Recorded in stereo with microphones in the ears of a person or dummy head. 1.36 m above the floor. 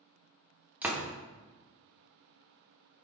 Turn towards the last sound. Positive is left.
turn(degrees=-5)  # may be behind; listen again after turning